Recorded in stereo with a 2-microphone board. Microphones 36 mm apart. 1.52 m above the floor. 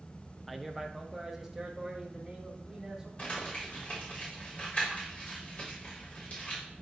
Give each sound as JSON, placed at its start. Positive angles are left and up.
{"t": 0.5, "sound": "a man speaking", "side_deg": 0, "distance_m": 0.5}
{"t": 3.2, "sound": "crumpling", "side_deg": 40, "distance_m": 4.0}